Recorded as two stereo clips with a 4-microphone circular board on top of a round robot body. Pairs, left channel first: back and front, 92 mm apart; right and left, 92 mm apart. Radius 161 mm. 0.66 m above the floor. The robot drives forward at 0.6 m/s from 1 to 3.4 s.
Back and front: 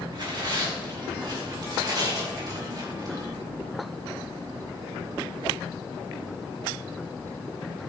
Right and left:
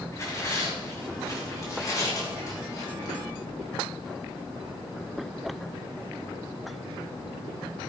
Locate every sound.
0.1 s tearing paper: 35° right, 5.5 m; by 3.2 s 45° right, 4.5 m